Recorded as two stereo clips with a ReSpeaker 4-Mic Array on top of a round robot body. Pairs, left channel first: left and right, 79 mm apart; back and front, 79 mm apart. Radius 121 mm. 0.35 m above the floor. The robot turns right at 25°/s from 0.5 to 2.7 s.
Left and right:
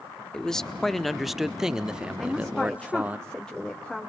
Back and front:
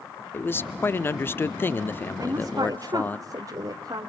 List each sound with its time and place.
0.3 s a man speaking: 165° left, 0.8 m; by 3.2 s 140° right, 0.8 m
2.2 s a woman speaking: straight ahead, 2.0 m; by 4.1 s 10° left, 2.0 m